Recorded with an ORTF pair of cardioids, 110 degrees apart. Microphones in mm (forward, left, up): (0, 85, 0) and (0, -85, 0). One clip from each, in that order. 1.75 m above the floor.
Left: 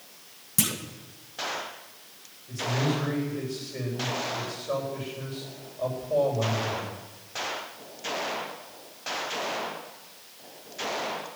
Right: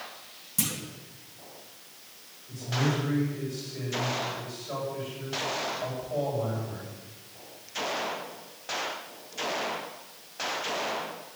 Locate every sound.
0.6 s a clunk: 35° left, 1.8 m
2.5 s a man speaking: 55° left, 9 m